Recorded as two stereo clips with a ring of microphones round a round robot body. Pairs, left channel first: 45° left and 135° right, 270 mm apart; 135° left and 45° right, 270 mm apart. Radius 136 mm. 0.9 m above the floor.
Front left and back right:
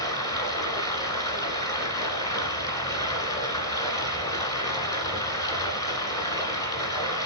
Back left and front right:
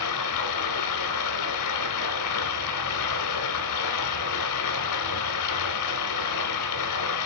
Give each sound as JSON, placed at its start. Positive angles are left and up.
{"t": 0.0, "sound": "running water", "azimuth_deg": 120, "distance_m": 1.6}